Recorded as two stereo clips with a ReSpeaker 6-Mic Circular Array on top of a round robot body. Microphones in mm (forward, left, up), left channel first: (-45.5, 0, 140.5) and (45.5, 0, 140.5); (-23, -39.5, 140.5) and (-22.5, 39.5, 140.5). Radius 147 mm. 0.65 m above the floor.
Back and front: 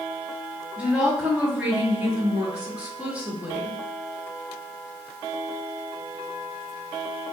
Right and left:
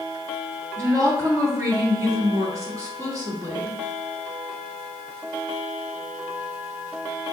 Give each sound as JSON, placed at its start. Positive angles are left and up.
{"t": 0.8, "sound": "a woman speaking", "azimuth_deg": 70, "distance_m": 1.4}